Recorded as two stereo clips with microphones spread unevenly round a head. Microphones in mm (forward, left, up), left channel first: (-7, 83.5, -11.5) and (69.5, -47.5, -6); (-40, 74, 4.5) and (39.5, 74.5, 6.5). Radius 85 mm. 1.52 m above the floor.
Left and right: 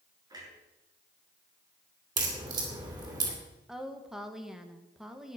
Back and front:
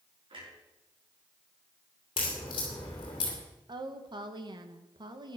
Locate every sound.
0.3 s a clunk: 5° left, 6.5 m
2.2 s a crack: 125° right, 2.5 m
3.7 s a woman speaking: 30° left, 1.5 m